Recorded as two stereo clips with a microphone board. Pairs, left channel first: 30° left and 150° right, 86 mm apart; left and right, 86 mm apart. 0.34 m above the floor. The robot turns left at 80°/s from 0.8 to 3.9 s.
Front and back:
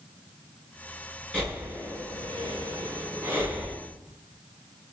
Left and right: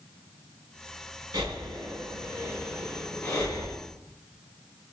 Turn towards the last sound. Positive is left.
turn(degrees=105)